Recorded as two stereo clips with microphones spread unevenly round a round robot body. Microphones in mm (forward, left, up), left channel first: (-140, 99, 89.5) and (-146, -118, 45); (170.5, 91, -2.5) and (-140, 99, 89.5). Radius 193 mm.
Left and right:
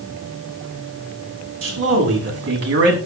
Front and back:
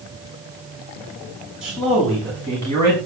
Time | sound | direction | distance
1.6 | a man speaking | 95° right | 6 m